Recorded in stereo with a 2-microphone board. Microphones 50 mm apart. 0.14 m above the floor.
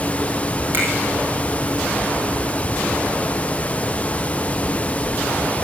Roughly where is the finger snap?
Right.